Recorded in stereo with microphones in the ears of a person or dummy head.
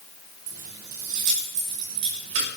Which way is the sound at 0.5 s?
45° right (ahead or behind).